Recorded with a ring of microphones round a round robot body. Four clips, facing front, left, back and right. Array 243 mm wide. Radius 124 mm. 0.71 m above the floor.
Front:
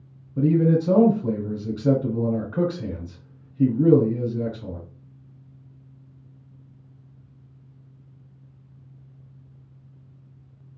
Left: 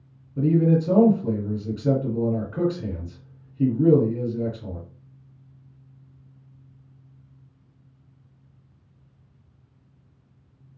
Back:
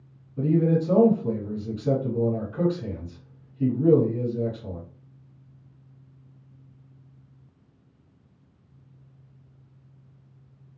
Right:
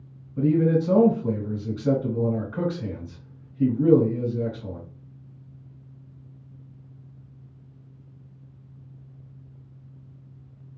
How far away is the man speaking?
About 2 m.